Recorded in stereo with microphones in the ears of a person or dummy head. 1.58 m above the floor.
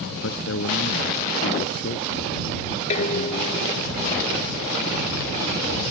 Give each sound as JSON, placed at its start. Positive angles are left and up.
{"t": 0.1, "sound": "a man speaking", "side_deg": 70}
{"t": 2.9, "sound": "dishes clattering", "side_deg": 40}